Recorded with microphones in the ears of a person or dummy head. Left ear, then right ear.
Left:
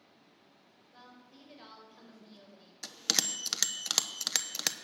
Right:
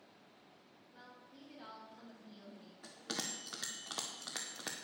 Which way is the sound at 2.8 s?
80° left.